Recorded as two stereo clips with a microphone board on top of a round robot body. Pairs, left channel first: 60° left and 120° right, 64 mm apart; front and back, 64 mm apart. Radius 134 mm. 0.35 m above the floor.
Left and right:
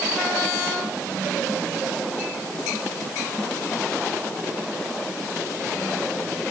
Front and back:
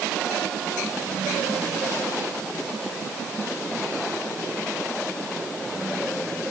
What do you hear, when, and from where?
Only background noise.